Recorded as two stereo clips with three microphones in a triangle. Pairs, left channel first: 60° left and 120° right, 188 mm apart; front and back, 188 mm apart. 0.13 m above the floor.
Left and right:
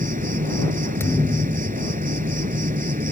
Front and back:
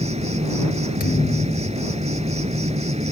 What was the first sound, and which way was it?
An insect, 140° right.